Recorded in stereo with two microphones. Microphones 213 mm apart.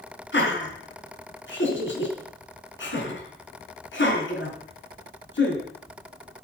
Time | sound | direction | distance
0.3 | laughter | 65° left (ahead or behind) | 4 m